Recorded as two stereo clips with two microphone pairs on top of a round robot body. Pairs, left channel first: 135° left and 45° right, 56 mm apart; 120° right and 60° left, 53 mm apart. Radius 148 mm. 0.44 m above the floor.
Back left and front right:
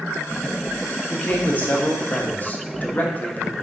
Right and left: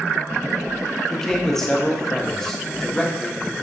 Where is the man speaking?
Straight behind, 0.9 m.